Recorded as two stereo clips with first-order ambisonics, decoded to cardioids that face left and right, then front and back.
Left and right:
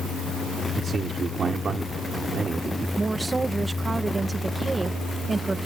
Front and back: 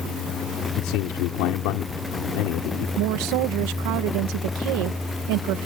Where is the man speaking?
20° right.